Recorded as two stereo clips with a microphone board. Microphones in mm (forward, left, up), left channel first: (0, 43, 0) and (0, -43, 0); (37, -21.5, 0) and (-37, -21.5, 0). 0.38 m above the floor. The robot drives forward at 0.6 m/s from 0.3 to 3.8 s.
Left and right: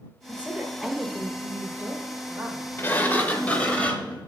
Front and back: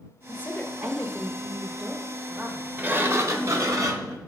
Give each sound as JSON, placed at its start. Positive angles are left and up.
{"t": 0.3, "sound": "a woman speaking", "azimuth_deg": -30, "distance_m": 1.2}
{"t": 2.8, "sound": "a sliding door", "azimuth_deg": 135, "distance_m": 0.7}